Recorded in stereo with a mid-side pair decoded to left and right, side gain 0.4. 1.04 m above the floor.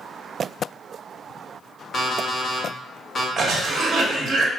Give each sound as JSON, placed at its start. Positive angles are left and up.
{"t": 1.9, "sound": "an alarm clock", "azimuth_deg": 45, "distance_m": 0.8}
{"t": 3.4, "sound": "a cough", "azimuth_deg": -60, "distance_m": 0.9}